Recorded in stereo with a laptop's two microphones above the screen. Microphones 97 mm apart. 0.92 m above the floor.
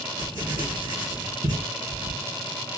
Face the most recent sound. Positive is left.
turn(degrees=-45)  # may be behind; listen again after turning